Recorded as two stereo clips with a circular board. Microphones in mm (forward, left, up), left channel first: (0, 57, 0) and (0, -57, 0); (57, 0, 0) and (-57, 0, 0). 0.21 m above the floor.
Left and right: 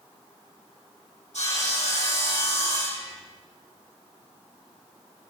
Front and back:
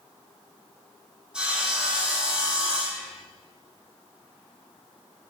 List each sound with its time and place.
1.3 s sawing: 100° left, 6 m